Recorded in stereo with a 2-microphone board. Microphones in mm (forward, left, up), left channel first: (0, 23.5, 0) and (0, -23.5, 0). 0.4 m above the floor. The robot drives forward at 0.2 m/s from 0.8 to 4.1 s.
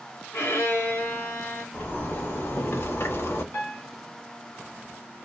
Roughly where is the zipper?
Left.